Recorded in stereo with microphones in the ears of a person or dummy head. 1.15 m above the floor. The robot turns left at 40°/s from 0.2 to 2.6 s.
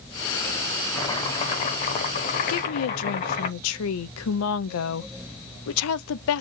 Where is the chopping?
15° left (ahead or behind), 0.9 m; by 3.5 s 30° left (ahead or behind), 0.9 m.